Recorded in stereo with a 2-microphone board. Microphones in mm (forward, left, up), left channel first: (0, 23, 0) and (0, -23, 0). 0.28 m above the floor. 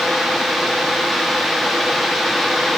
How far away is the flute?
No flute in this recording.